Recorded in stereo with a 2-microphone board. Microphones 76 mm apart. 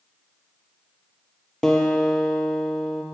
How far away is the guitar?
About 1.7 m.